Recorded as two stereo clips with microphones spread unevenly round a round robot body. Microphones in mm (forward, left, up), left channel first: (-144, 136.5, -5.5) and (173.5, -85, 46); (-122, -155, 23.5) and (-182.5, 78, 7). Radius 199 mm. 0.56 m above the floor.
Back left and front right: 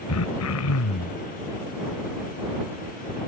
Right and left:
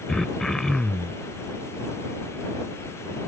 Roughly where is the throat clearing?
Behind.